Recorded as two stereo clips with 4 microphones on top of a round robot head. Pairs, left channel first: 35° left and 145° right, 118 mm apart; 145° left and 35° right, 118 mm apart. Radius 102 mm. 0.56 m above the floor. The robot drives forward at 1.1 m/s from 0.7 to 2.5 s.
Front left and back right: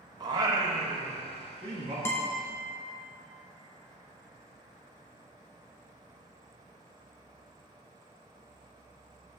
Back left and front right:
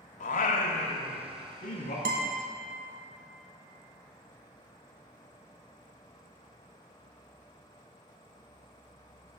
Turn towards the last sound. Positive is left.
turn(degrees=-75)